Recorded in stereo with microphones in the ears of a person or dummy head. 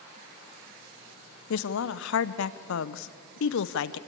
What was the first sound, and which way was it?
A woman speaking, 70° left (ahead or behind).